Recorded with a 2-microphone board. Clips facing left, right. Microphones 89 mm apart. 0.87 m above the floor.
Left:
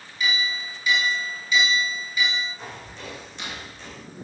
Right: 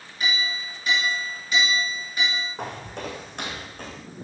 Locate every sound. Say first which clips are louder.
0.2 s a clink: left 1 dB; 50° right (ahead or behind), 8 m
2.6 s footsteps: right 6 dB; 70° right (ahead or behind), 3.5 m; by 4.0 s 55° right (ahead or behind), 4 m